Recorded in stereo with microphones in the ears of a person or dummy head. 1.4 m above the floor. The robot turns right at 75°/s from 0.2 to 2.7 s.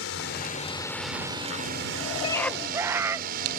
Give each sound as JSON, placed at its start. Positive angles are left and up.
{"t": 0.0, "sound": "a drone", "azimuth_deg": 115}
{"t": 2.2, "sound": "a scream", "azimuth_deg": 160}